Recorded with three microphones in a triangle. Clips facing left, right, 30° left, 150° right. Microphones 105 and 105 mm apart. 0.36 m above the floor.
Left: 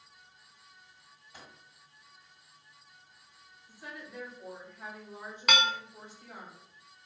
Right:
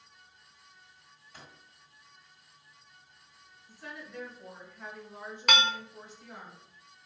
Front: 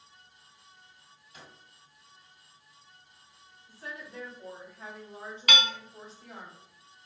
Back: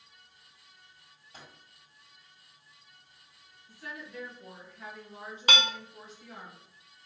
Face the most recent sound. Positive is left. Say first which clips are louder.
# right 1 dB, back 1 dB
turn(degrees=180)